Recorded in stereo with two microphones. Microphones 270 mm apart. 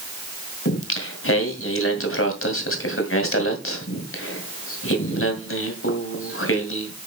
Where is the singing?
55° left (ahead or behind), 2 m.